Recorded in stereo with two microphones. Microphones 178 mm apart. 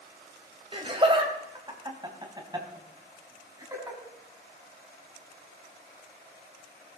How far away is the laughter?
About 2.5 m.